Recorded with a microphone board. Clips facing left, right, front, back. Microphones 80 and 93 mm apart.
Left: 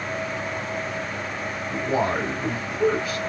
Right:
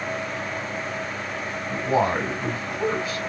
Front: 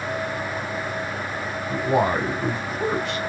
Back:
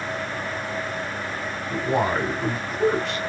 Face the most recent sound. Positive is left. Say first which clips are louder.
# right 2 dB, front 2 dB
turn(degrees=-60)